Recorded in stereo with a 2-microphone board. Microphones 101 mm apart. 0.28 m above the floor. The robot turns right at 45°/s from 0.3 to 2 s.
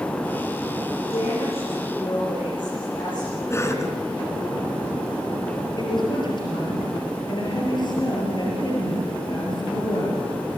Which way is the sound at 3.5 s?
25° left (ahead or behind).